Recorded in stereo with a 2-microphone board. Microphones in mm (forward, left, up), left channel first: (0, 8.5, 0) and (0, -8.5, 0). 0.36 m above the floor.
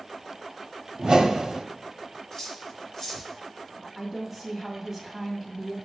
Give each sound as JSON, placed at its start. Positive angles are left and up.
{"t": 1.0, "sound": "a whoosh", "side_deg": -60, "distance_m": 0.9}
{"t": 2.3, "sound": "cutlery clinking", "side_deg": 15, "distance_m": 3.0}
{"t": 4.0, "sound": "a woman speaking", "side_deg": -20, "distance_m": 2.0}